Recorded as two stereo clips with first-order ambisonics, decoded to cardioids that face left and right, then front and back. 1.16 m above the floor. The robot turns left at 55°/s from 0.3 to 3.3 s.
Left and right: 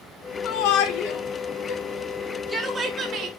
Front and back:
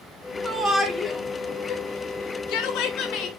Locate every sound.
0.4 s a shout: 115° left, 3 m; by 3.3 s 40° right, 3 m